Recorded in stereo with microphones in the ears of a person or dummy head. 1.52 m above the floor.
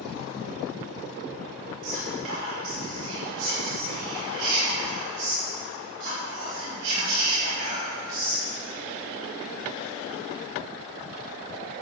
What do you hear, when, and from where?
1.8 s whispering: 75° right (ahead or behind), 6 m